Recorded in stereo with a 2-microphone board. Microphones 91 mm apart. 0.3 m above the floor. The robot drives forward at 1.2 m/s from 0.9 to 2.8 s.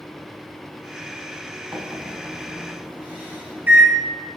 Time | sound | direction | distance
1.7 | a microwave | 35° right (ahead or behind) | 1.8 m